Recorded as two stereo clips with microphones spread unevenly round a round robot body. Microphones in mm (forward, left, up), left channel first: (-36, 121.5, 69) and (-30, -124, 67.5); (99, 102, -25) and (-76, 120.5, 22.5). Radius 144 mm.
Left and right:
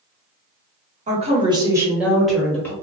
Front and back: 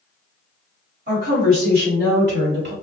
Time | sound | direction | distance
1.1 | a woman speaking | 135° right | 1.3 m